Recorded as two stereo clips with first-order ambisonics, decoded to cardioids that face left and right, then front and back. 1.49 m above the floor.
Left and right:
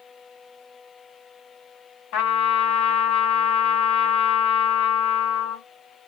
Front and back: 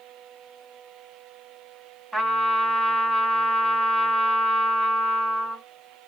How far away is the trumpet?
About 2.5 m.